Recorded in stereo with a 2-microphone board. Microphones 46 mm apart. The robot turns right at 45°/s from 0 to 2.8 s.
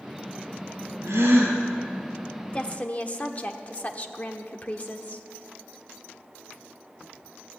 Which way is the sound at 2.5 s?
25° left (ahead or behind).